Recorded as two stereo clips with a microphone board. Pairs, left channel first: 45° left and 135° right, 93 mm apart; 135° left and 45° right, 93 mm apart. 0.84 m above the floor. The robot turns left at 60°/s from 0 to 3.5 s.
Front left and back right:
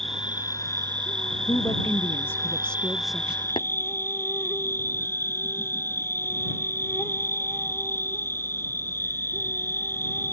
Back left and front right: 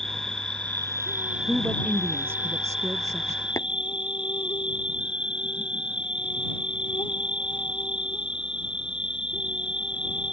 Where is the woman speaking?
50° left; by 3.5 s 70° right.